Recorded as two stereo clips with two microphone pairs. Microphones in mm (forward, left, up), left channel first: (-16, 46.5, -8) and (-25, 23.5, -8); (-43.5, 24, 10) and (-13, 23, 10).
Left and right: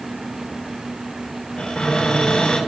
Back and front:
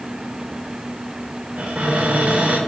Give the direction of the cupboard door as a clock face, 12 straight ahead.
11 o'clock.